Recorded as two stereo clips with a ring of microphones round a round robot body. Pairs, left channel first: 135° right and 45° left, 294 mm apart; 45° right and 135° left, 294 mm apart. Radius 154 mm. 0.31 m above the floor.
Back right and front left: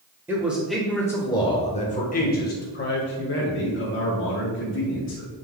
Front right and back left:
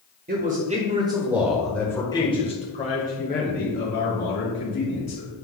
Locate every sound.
0.3 s a man speaking: 120° left, 1.4 m; by 5.3 s 90° right, 3 m